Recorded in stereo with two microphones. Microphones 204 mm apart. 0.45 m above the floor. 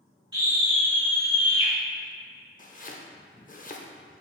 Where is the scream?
20° right (ahead or behind), 1.7 m; by 1.7 s 55° right (ahead or behind), 2 m.